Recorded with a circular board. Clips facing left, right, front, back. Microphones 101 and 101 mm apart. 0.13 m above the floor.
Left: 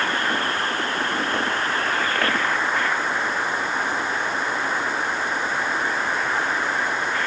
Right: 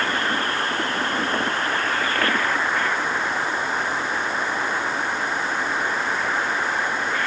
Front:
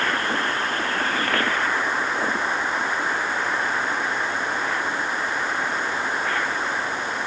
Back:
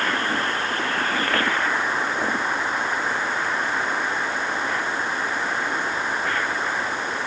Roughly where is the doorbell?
I don't hear a doorbell.